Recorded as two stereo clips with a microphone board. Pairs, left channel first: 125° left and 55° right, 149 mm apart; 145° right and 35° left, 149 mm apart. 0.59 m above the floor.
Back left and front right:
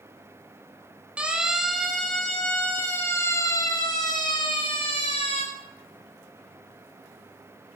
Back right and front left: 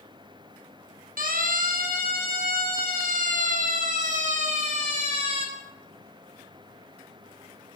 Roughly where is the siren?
Ahead left.